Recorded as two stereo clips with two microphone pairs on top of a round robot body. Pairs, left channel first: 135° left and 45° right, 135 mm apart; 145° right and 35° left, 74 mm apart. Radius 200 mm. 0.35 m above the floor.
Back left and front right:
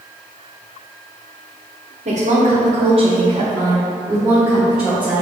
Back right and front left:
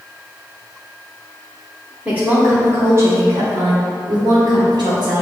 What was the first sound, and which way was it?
A woman speaking, 35° right.